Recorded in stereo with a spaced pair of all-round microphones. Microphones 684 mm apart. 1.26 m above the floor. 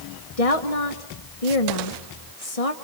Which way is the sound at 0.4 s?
55° left (ahead or behind).